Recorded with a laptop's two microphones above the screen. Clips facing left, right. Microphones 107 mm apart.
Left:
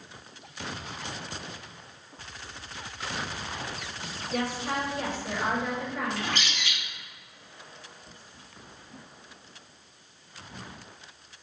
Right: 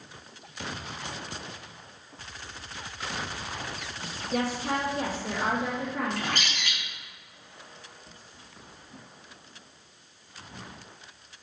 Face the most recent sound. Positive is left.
turn(degrees=-45)  # may be behind; listen again after turning